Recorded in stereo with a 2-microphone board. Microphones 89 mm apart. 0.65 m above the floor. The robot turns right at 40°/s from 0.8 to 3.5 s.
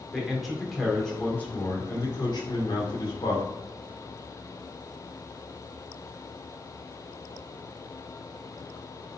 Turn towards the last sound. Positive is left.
turn(degrees=110)